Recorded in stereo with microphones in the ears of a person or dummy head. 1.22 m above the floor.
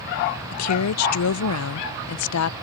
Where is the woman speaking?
85° left.